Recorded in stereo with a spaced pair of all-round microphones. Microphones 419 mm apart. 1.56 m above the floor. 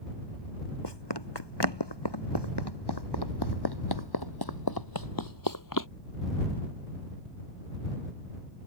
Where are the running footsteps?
75° left (ahead or behind); by 5.9 s 45° left (ahead or behind).